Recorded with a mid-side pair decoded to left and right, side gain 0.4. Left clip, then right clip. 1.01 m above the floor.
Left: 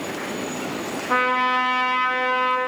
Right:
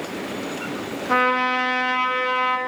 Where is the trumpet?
15° right, 0.6 m.